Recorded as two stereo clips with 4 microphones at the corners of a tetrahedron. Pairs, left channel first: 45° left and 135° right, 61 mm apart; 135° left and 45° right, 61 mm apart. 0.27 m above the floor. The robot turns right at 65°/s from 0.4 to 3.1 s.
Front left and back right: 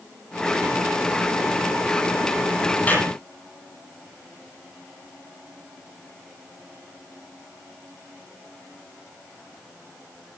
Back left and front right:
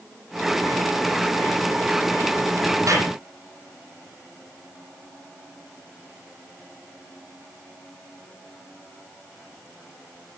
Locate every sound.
2.9 s a clap: 20° right, 9 m; by 3.1 s 5° right, 9 m